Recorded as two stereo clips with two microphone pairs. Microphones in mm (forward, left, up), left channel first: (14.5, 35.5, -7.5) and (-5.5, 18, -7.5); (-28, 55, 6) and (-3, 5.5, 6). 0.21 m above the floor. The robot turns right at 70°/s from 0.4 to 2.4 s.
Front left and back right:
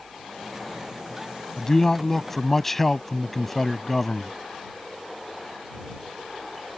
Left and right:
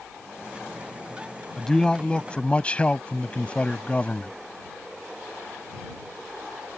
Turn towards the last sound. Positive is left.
turn(degrees=105)